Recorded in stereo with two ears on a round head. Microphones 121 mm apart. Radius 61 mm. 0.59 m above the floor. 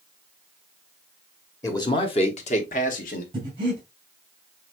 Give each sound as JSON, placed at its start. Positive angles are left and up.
{"t": 1.6, "sound": "a man speaking", "side_deg": 20, "distance_m": 1.0}
{"t": 3.3, "sound": "breathing", "side_deg": -40, "distance_m": 3.5}